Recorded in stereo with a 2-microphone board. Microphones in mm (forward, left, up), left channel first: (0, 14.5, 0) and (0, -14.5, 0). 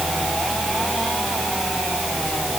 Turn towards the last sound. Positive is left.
No sound to turn to.